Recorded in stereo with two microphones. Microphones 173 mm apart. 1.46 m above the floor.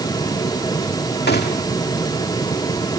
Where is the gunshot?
70° left (ahead or behind).